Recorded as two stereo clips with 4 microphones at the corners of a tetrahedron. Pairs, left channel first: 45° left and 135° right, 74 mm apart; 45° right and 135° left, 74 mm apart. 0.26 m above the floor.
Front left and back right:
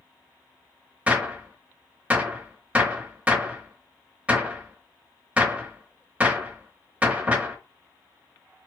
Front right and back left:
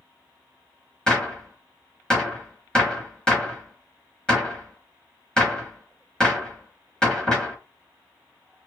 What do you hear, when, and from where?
1.1 s a gunshot: 100° right, 0.8 m